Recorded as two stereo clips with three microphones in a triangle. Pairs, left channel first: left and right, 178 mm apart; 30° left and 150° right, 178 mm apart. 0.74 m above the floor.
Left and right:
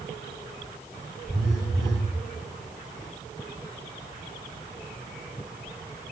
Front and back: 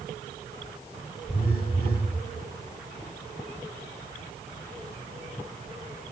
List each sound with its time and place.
1.3 s a phone buzzing: straight ahead, 3.5 m